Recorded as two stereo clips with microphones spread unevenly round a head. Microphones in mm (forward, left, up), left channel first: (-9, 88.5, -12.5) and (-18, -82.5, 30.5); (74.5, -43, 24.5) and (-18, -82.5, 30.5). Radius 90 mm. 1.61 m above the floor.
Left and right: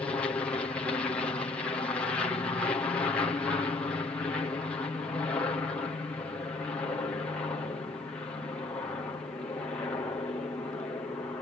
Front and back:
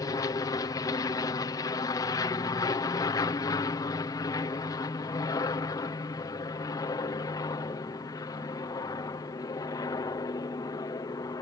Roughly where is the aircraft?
Ahead left.